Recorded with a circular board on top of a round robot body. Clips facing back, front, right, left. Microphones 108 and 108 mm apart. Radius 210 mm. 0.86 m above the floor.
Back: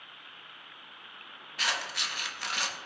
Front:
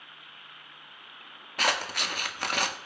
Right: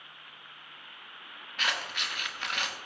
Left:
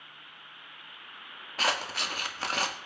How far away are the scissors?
About 0.8 m.